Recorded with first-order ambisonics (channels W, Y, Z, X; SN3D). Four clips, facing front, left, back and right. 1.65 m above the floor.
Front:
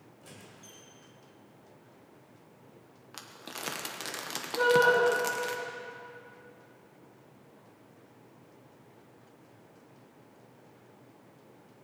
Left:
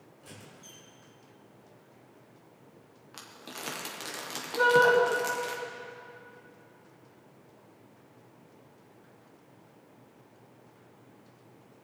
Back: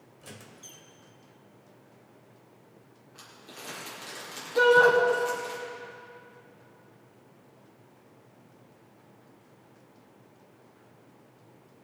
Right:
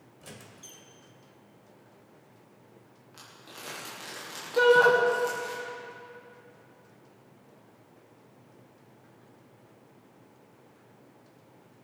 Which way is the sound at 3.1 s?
25° left.